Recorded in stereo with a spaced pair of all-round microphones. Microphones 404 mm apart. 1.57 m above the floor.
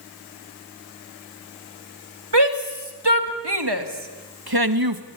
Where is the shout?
80° right, 3 m; by 5.0 s 55° right (ahead or behind), 1.5 m.